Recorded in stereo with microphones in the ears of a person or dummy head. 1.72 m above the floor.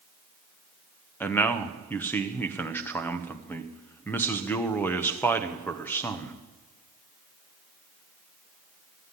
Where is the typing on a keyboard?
I don't hear typing on a keyboard.